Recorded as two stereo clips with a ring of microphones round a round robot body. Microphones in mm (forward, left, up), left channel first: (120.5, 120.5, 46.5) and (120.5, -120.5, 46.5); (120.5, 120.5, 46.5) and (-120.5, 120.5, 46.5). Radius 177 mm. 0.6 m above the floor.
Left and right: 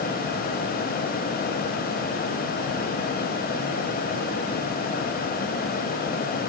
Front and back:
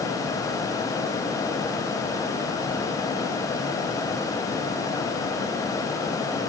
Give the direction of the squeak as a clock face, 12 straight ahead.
I don't hear a squeak.